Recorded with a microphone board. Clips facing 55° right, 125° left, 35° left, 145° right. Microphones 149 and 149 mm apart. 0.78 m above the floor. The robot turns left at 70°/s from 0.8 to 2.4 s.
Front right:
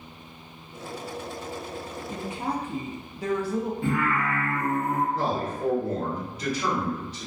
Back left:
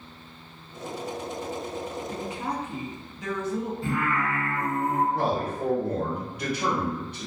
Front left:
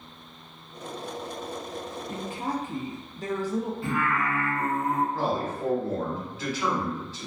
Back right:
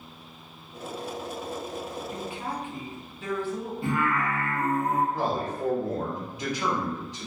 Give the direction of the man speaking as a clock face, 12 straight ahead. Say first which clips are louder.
Back left 1 dB, even; 7 o'clock.